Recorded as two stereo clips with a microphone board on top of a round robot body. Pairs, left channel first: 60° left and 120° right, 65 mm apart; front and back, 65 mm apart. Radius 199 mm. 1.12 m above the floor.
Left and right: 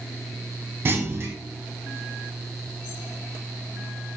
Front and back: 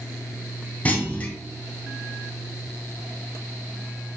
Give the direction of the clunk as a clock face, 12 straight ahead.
2 o'clock.